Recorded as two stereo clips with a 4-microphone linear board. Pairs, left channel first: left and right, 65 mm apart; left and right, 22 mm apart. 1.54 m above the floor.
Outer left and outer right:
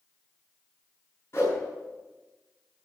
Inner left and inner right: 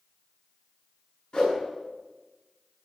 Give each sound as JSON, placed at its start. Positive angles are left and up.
{"t": 1.3, "sound": "a whoosh", "side_deg": 40, "distance_m": 8.5}